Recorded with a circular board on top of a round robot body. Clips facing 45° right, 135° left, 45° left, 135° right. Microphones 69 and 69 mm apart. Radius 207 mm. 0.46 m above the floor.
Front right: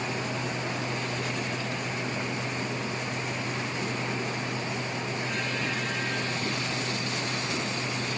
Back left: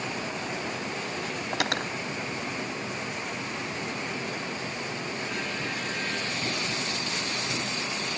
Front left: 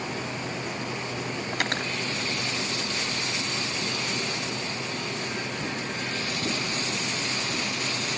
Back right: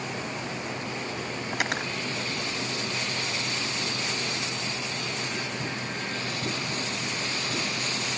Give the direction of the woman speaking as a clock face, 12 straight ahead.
No woman speaking in this recording.